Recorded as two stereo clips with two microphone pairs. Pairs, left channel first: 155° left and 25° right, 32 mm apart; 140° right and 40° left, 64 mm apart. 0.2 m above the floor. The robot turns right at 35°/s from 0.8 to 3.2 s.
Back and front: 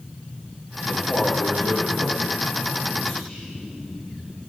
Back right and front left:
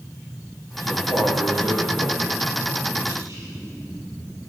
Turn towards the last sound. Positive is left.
turn(degrees=65)